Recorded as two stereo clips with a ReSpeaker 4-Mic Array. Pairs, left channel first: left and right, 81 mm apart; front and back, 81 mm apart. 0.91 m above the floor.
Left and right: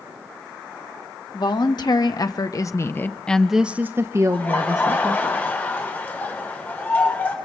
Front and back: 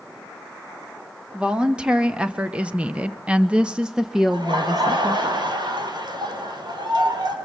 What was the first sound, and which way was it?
A woman speaking, 100° left.